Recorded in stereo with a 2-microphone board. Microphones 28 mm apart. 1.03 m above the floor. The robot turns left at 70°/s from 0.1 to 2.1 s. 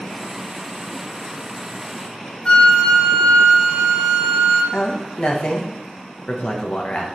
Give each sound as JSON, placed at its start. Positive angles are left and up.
{"t": 2.5, "sound": "a flute", "side_deg": 40, "distance_m": 2.5}
{"t": 4.7, "sound": "a man speaking", "side_deg": 45, "distance_m": 1.2}